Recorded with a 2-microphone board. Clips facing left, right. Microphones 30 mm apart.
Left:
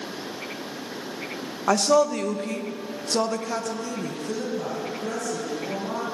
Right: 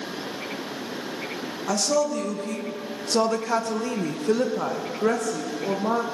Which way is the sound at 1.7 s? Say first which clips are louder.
Left 4 dB; 40° left (ahead or behind).